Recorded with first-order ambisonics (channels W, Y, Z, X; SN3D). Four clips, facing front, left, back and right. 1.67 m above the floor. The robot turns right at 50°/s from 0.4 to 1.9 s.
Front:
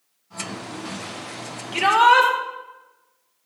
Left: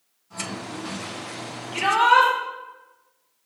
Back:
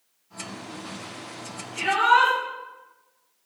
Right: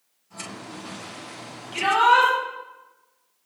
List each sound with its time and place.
1.7 s a shout: straight ahead, 5 m; by 2.3 s 5° left, 5 m